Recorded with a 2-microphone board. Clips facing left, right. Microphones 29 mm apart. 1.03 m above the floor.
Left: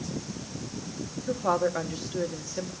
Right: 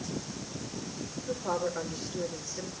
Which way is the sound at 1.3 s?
70° left (ahead or behind).